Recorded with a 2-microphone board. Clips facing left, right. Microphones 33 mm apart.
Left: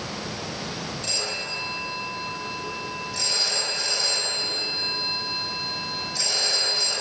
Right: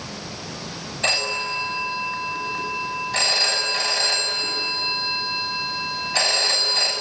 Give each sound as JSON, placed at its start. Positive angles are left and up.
{"t": 1.0, "sound": "a phone ringing", "side_deg": -55, "distance_m": 6.0}